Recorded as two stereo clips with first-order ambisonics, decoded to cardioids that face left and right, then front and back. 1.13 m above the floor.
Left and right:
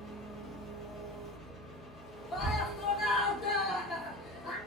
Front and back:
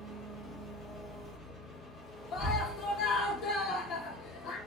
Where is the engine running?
35° left, 1.4 m.